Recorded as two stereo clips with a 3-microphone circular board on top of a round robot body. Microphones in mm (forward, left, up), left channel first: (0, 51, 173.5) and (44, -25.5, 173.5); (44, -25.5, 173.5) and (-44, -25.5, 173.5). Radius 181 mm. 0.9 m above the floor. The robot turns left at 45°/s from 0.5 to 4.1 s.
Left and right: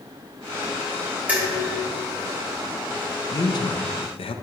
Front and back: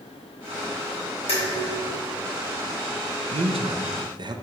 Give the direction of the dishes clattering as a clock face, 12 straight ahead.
11 o'clock.